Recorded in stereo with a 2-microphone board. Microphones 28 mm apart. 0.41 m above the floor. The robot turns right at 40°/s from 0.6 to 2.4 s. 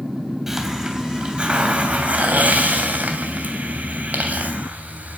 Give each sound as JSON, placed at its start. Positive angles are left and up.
{"t": 0.5, "sound": "a hiss", "azimuth_deg": -170, "distance_m": 3.0}